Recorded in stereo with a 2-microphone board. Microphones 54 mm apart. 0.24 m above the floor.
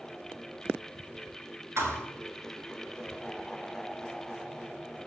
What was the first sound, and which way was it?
A thud, 60° right (ahead or behind).